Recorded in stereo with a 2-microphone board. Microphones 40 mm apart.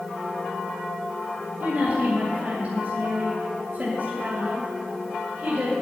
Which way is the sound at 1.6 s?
45° right (ahead or behind).